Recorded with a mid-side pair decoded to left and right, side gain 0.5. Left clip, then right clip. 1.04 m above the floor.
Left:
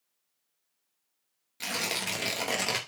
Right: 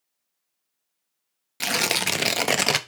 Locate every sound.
1.6 s tearing paper: 60° right, 0.8 m